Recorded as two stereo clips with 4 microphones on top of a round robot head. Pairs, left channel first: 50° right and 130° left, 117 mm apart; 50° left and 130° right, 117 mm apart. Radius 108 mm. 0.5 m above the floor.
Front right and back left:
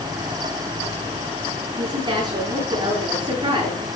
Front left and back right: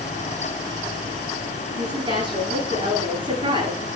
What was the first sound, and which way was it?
A woman speaking, 175° right.